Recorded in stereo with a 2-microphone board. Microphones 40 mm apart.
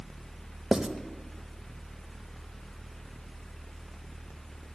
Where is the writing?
10° right (ahead or behind), 0.7 m.